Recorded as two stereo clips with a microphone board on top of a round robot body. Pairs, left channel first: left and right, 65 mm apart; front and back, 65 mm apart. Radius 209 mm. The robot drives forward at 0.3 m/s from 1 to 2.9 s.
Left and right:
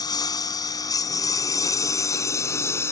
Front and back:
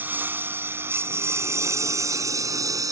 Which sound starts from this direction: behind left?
A lawn mower, at 0.0 s.